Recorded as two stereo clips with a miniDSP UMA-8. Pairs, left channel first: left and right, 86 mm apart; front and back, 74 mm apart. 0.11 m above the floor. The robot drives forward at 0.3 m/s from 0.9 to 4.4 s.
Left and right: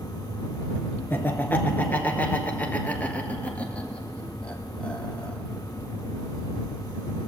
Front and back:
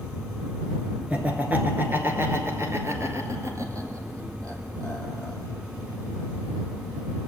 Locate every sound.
1.1 s laughter: 130° left, 1.2 m; by 5.4 s 160° left, 1.8 m